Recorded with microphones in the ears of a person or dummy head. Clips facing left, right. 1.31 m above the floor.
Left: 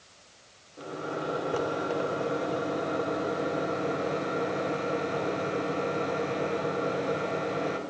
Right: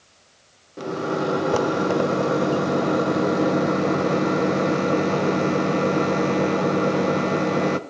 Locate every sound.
0.8 s a microwave: 80° right, 0.5 m